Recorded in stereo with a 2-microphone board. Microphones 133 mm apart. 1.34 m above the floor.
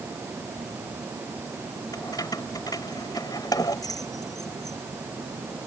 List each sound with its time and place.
1.9 s keys jangling: 30° left (ahead or behind)